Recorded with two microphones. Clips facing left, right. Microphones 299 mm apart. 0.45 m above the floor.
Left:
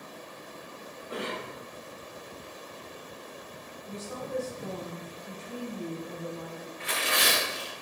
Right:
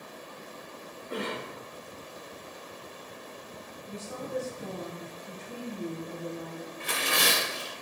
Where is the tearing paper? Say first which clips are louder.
Right 1 dB; 55° right (ahead or behind), 0.6 m.